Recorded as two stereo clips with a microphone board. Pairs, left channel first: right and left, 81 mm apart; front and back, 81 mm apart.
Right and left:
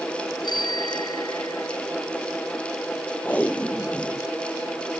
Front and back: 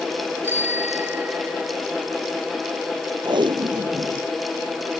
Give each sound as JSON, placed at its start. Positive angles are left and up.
{"t": 0.4, "sound": "a bicycle bell", "azimuth_deg": -115}
{"t": 3.2, "sound": "tape being pulled", "azimuth_deg": -160}